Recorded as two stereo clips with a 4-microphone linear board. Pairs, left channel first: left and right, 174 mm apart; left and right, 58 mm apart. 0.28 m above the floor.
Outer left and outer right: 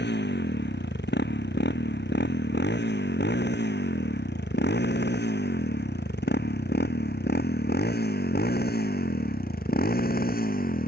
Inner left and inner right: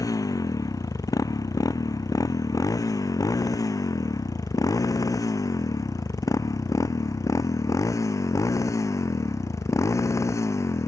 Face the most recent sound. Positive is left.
turn(degrees=55)  # may be behind; listen again after turning